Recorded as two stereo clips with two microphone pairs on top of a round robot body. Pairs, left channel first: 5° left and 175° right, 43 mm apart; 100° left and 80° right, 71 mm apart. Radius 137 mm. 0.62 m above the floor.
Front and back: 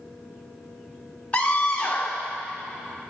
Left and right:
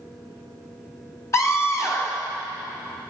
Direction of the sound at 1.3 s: 75° left.